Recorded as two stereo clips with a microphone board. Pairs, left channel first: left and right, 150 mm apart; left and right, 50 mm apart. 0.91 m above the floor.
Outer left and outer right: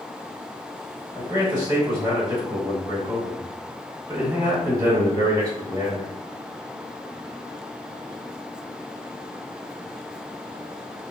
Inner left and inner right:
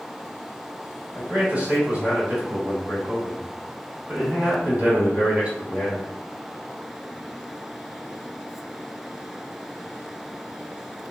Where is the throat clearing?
No throat clearing in this recording.